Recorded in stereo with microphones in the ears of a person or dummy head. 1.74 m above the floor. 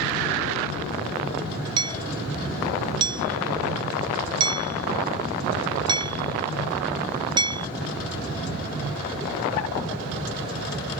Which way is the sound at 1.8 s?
25° right (ahead or behind).